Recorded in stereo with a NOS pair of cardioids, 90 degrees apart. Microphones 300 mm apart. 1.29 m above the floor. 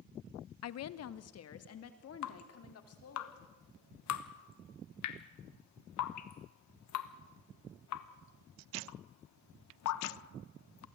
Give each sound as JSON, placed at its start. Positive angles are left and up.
{"t": 0.6, "sound": "a woman speaking", "azimuth_deg": 60, "distance_m": 0.7}
{"t": 2.2, "sound": "dripping", "azimuth_deg": 70, "distance_m": 1.2}